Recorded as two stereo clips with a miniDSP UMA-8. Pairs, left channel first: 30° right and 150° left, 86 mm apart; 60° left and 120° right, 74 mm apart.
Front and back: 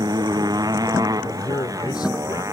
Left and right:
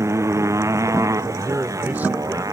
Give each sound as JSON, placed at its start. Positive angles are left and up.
{"t": 0.0, "sound": "a motorcycle", "azimuth_deg": -170}
{"t": 1.2, "sound": "a man speaking", "azimuth_deg": -55}